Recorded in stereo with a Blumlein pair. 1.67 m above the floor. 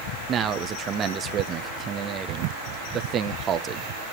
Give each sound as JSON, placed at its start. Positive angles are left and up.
{"t": 0.3, "sound": "a man speaking", "azimuth_deg": -25, "distance_m": 1.4}